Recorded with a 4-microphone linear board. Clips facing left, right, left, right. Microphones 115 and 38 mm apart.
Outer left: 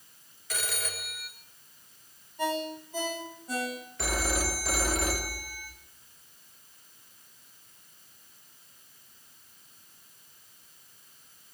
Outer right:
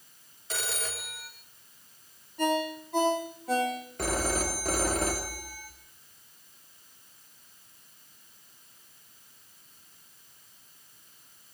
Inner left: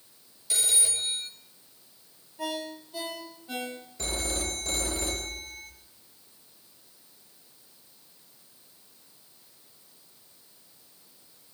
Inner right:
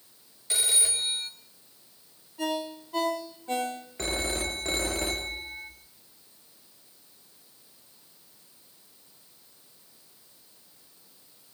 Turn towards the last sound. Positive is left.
turn(degrees=-45)  # may be behind; listen again after turning